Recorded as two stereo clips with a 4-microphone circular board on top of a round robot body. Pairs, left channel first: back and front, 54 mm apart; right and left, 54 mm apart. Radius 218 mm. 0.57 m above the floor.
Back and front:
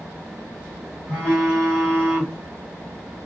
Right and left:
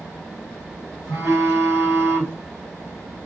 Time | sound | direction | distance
1.1 | a phone buzzing | 125° left | 1.8 m